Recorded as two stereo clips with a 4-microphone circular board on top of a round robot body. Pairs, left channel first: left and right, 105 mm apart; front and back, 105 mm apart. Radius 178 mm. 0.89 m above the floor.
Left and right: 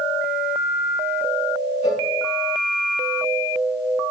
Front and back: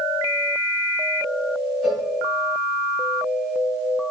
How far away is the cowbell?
About 2 m.